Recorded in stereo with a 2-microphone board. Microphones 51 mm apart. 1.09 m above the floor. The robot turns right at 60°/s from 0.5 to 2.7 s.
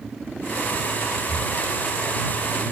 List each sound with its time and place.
1.3 s breathing: 55° left (ahead or behind); by 1.6 s 40° left (ahead or behind)